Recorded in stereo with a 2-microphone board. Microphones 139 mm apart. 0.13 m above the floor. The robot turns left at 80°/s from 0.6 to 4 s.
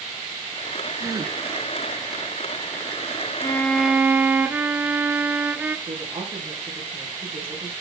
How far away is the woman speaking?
About 5.5 m.